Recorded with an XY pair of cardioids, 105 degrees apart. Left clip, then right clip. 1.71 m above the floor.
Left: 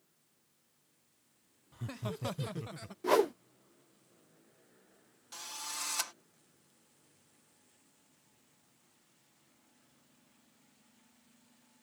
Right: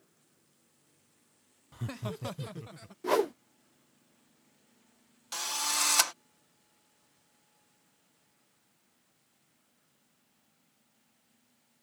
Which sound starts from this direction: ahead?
A whoosh, at 3.0 s.